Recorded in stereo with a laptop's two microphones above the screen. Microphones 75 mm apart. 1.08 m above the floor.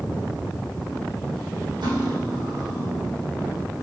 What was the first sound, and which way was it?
Cutlery clinking, 80° right.